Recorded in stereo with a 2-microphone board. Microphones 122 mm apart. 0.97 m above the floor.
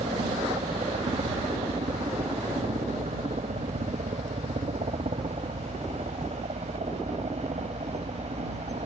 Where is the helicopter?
70° right (ahead or behind); by 8.9 s 65° right (ahead or behind).